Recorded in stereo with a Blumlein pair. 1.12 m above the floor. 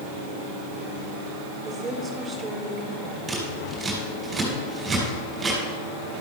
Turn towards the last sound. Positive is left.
turn(degrees=-15)